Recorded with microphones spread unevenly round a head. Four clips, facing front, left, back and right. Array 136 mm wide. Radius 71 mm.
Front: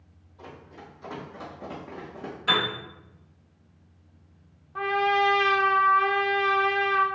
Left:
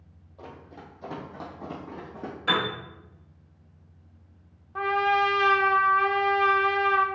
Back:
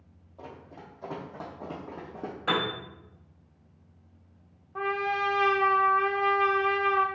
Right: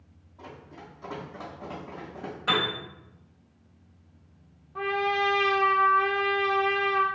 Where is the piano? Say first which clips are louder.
Left 1 dB, front 1 dB; 175° right, 1.6 m.